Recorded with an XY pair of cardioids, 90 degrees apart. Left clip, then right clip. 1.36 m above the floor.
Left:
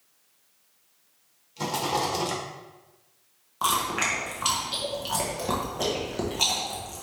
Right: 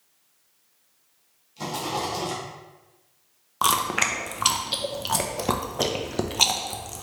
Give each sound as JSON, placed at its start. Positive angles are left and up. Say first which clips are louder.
{"t": 1.6, "sound": "a rattle", "louder": "left 2 dB", "azimuth_deg": 25, "distance_m": 1.5}
{"t": 3.6, "sound": "chewing", "louder": "right 3 dB", "azimuth_deg": -60, "distance_m": 0.7}